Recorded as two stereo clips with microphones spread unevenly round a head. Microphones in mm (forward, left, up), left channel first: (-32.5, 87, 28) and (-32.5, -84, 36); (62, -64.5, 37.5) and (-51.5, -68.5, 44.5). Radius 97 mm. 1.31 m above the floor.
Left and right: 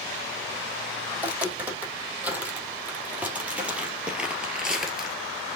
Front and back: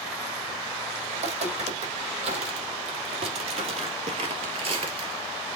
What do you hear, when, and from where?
1.1 s footsteps: 165° right, 4 m; by 5.2 s 175° right, 1.7 m